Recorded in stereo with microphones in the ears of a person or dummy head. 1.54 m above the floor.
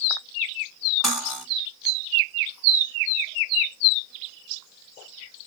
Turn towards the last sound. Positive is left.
turn(degrees=0)  # may be behind; listen again after turning